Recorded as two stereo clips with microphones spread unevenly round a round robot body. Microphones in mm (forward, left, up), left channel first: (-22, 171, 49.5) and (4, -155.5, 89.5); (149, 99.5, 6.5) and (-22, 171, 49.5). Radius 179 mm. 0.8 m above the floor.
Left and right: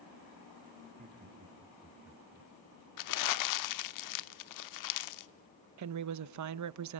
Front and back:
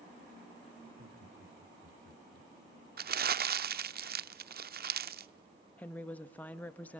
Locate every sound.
0.8 s laughter: 150° right, 1.9 m; by 2.5 s 175° right, 1.8 m
3.0 s crumpling: 130° left, 0.7 m
5.8 s a woman speaking: 85° right, 0.7 m